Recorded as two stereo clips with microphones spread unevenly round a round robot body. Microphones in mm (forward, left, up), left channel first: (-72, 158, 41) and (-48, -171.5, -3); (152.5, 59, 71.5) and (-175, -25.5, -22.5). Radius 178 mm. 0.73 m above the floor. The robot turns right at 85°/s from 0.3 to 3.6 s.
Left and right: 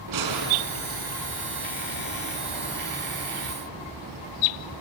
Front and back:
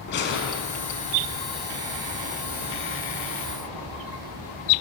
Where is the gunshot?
50° right, 5 m; by 1.2 s 30° left, 5 m.